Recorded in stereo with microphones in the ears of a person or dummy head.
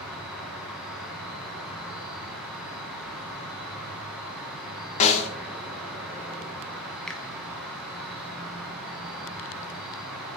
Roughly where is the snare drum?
Left.